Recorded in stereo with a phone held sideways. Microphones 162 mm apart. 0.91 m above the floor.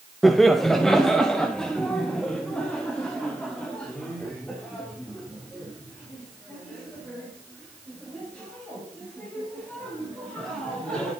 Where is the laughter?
Centre (ahead or behind), 0.9 m; by 11.1 s 5° left (ahead or behind), 7 m.